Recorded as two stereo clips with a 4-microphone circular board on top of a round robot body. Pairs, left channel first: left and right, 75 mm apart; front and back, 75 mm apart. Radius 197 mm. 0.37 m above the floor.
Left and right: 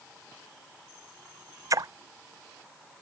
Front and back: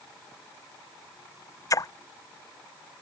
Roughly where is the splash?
Ahead right.